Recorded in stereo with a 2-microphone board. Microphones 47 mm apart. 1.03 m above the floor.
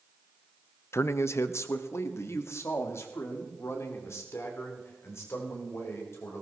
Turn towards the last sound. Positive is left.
turn(degrees=70)  # may be behind; listen again after turning